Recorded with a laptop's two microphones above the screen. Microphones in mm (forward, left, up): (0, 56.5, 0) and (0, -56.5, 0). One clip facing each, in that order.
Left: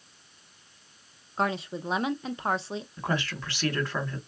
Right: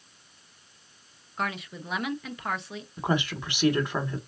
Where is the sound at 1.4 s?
30° left (ahead or behind), 0.6 m.